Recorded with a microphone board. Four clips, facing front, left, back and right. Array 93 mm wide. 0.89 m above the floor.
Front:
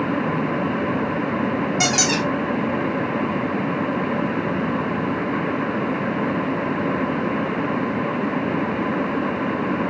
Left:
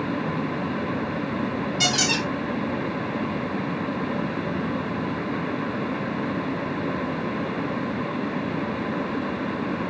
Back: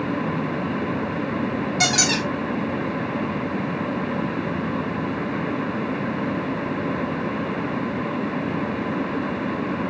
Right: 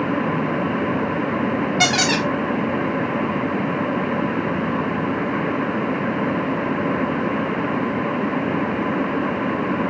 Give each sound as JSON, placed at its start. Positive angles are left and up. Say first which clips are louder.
{"t": 1.8, "sound": "a squeak", "louder": "right 5 dB, front 2 dB", "azimuth_deg": -70, "distance_m": 0.9}